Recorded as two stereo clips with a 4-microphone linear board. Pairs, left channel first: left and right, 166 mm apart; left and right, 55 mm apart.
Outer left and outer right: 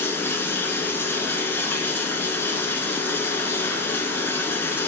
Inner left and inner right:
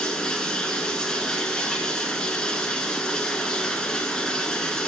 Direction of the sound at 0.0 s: 10° left (ahead or behind).